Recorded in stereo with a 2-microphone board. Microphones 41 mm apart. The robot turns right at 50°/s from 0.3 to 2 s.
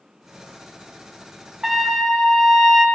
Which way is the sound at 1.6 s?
10° right (ahead or behind).